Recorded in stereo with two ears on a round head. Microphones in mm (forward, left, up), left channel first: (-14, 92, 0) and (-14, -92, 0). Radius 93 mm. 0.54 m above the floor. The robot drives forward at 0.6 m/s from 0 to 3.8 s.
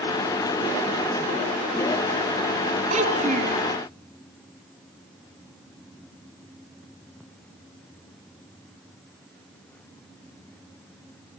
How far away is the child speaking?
About 5.5 m.